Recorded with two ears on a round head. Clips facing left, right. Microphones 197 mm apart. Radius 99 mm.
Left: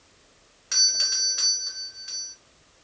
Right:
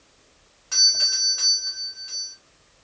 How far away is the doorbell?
About 1.3 m.